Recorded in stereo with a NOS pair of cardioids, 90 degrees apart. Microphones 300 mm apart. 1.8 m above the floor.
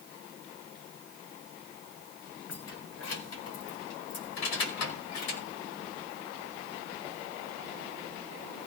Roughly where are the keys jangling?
Ahead left.